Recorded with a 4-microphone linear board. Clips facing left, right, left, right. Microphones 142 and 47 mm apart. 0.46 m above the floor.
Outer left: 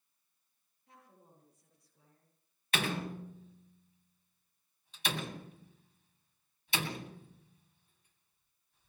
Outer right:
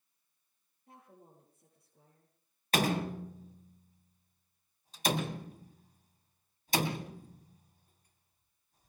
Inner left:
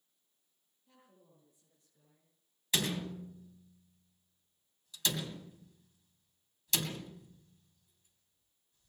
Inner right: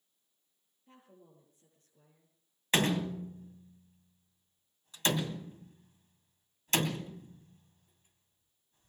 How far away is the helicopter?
No helicopter in this recording.